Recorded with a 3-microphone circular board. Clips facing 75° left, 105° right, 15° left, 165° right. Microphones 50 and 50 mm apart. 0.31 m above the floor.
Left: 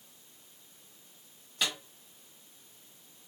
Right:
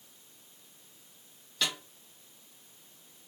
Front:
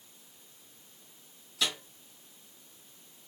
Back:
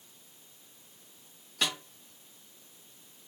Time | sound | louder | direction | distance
1.6 | a snare drum | even, back 1 dB | 155° left | 2 m